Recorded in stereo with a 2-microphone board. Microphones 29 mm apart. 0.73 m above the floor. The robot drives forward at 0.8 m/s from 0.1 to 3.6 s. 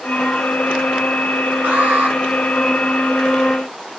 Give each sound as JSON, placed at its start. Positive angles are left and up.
{"t": 1.6, "sound": "an alarm", "side_deg": -55, "distance_m": 8.0}